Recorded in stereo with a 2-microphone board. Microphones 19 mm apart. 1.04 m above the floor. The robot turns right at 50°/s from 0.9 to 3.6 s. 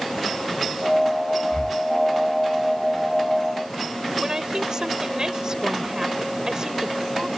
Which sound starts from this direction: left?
Breathing, at 1.5 s.